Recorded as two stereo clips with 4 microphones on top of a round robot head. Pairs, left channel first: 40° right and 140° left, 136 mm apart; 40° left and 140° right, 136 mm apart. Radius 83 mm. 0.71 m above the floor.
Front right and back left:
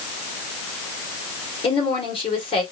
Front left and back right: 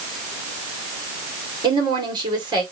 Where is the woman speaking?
85° right, 2 m.